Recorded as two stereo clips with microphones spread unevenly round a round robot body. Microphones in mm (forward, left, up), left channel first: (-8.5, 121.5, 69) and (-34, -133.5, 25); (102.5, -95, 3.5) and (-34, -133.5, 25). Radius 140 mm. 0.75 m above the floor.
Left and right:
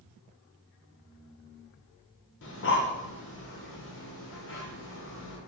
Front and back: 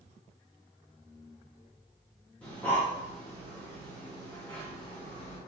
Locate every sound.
2.4 s breathing: 80° left, 0.7 m